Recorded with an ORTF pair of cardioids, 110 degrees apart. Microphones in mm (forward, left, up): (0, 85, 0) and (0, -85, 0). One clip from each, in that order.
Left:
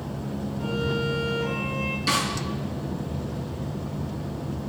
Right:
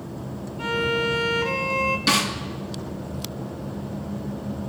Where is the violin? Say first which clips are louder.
Right 5 dB; 60° right, 2.5 m.